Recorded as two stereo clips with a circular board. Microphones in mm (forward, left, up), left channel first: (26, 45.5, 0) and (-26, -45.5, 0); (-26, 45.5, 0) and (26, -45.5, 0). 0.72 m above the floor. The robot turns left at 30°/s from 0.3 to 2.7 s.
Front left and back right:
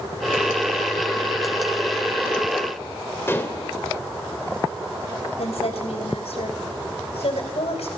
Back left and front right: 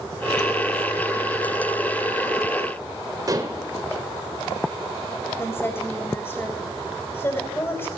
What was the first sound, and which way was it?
Dishes clattering, 5° right.